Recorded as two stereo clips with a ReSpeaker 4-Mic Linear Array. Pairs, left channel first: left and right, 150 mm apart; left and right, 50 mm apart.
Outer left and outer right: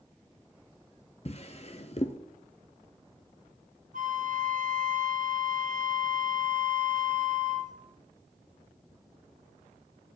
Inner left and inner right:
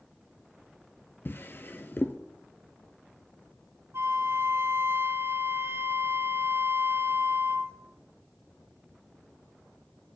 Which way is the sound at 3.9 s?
60° right (ahead or behind).